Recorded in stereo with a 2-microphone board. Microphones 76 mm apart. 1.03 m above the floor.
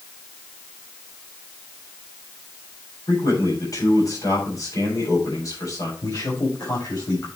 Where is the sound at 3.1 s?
45° left (ahead or behind), 8 m.